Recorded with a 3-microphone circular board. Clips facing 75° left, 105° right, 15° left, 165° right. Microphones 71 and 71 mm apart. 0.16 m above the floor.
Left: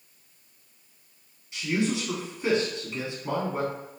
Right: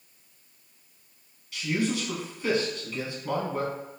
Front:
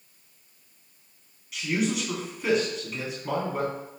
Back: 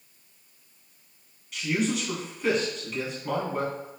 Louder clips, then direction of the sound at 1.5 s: Left 1 dB, even; 95° left.